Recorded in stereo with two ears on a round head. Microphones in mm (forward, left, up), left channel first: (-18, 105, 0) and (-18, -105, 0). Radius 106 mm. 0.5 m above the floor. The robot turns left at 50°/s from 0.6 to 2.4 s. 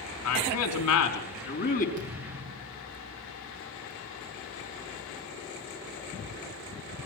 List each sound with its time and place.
0.2 s a man speaking: 95° left, 5.5 m; by 1.9 s 35° left, 5.5 m
2.0 s a thud: 35° right (ahead or behind), 10 m; by 2.9 s 15° right (ahead or behind), 10 m